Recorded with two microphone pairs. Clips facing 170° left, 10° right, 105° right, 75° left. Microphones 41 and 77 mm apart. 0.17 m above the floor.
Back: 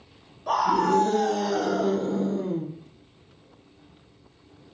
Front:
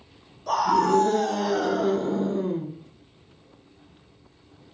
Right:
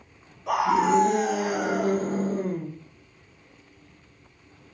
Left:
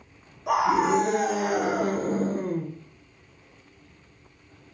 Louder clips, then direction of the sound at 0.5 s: Front 1 dB, even; 130° left.